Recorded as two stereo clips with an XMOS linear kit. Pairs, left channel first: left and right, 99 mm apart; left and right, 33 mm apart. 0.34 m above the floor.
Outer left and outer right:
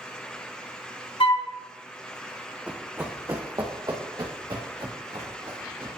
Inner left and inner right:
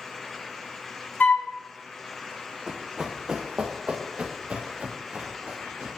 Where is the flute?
60° left (ahead or behind), 0.8 m.